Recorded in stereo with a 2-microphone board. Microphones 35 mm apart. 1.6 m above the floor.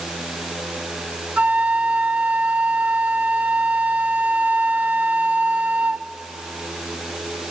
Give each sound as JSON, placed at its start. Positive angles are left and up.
{"t": 1.4, "sound": "a flute", "side_deg": -45, "distance_m": 0.6}